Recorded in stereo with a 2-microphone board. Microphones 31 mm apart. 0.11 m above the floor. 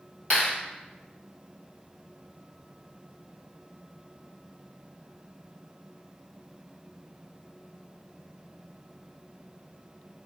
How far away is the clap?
About 2.0 m.